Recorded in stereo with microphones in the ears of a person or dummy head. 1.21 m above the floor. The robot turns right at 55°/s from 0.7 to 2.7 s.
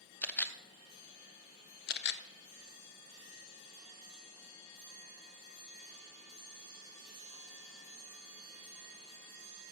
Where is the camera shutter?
10° left (ahead or behind), 0.5 m; by 2.2 s 50° left (ahead or behind), 0.5 m.